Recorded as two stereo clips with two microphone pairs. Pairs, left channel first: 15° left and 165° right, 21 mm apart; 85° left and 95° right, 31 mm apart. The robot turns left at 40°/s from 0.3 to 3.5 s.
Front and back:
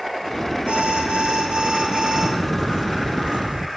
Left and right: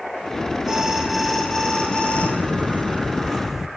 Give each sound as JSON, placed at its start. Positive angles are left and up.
{"t": 0.7, "sound": "an alarm", "azimuth_deg": -160, "distance_m": 6.0}
{"t": 2.1, "sound": "footsteps", "azimuth_deg": -80, "distance_m": 1.0}